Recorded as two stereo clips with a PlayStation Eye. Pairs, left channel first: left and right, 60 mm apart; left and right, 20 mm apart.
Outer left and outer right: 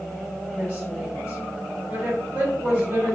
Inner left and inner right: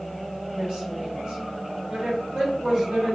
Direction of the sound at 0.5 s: 40° right (ahead or behind).